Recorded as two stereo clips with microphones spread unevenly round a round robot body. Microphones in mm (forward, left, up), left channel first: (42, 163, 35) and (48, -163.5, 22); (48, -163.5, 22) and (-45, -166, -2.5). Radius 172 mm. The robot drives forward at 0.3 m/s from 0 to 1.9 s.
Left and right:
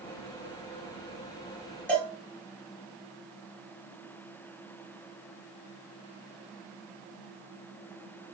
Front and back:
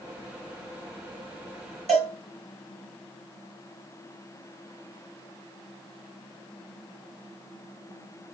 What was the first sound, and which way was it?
A cowbell, 175° left.